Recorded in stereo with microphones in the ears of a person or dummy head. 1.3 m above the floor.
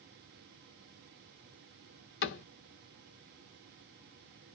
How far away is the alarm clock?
No alarm clock in this recording.